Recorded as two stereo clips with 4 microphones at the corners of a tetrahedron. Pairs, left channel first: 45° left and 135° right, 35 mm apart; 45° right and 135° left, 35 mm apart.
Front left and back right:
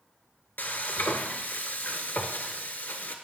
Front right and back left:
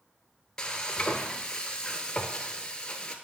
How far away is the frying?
About 0.8 m.